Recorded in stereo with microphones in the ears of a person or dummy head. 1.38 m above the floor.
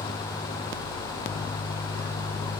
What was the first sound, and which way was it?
Only background noise.